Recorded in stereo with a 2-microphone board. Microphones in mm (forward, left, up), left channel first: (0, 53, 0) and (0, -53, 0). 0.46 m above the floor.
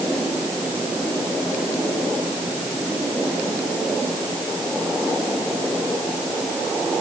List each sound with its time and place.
Only background noise.